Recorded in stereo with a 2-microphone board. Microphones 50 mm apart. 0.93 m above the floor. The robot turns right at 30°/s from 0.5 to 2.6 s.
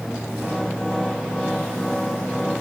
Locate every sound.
Only background noise.